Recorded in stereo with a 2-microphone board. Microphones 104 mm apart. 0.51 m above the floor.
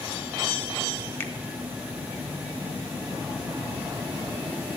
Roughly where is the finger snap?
Left.